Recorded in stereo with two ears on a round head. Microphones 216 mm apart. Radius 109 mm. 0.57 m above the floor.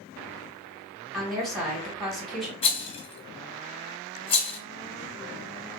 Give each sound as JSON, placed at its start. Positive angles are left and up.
{"t": 1.1, "sound": "a woman speaking", "side_deg": 0, "distance_m": 1.5}
{"t": 2.6, "sound": "a rattle", "side_deg": 25, "distance_m": 0.8}